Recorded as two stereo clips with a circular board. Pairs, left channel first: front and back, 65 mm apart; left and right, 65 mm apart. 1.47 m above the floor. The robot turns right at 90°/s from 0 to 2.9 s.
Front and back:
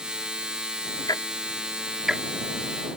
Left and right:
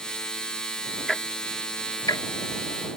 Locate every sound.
1.1 s ticking: 5° left; by 2.2 s 110° left